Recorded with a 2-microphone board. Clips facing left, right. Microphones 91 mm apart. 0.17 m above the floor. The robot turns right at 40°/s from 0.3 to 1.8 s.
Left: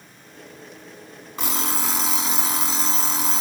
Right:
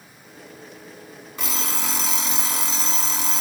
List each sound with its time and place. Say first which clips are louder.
1.4 s an alarm clock: left 2 dB; 20° left (ahead or behind), 1.0 m; by 3.4 s 10° left (ahead or behind), 1.0 m